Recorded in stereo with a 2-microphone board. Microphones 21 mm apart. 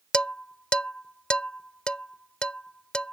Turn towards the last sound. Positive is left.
turn(degrees=55)  # may be behind; listen again after turning